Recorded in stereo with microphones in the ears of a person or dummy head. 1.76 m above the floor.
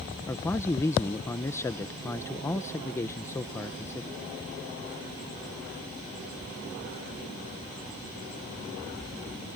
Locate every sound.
0.3 s a man speaking: 15° left (ahead or behind)